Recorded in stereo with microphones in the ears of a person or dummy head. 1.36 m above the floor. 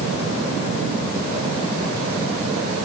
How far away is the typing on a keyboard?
I don't hear typing on a keyboard.